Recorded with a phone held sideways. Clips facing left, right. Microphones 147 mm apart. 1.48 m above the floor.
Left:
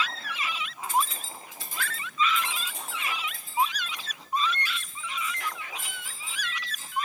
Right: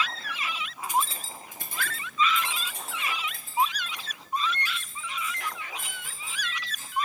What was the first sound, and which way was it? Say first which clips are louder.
Keys jangling: even; 10° right (ahead or behind).